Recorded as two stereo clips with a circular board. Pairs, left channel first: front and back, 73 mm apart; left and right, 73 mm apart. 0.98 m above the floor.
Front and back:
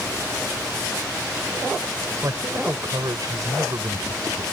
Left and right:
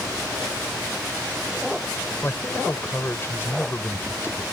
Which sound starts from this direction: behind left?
A man speaking, at 2.2 s.